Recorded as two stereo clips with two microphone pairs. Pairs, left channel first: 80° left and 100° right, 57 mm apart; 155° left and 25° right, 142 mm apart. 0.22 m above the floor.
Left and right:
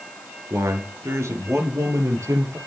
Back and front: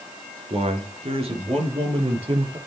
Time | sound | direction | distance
0.5 | a man speaking | 70° right | 3.5 m